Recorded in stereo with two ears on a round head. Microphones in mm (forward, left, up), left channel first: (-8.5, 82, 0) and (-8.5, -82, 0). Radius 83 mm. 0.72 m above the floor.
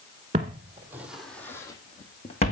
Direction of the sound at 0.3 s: 35° right (ahead or behind).